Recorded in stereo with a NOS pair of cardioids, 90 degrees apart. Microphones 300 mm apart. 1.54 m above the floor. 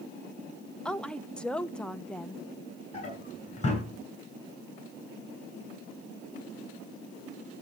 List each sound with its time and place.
0.8 s a woman speaking: 5° left, 1.1 m
2.9 s a drawer: 25° left, 9 m